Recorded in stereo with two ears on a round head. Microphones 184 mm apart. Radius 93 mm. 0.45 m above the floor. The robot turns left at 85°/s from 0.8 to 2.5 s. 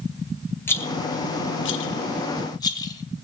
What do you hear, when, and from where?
0.7 s a rattle: 10° left (ahead or behind), 1.6 m; by 3.2 s 20° left (ahead or behind), 1.6 m